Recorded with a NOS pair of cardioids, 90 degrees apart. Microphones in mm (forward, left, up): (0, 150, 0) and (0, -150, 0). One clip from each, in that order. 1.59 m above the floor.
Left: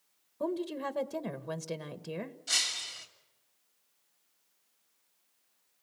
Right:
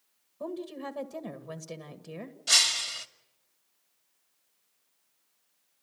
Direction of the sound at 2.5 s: 55° right.